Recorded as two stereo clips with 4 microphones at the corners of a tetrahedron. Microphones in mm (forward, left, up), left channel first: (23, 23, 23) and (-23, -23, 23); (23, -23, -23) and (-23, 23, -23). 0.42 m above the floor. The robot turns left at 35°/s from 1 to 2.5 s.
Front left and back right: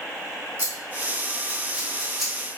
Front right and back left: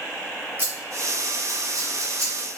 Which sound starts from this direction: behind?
Scissors, at 0.6 s.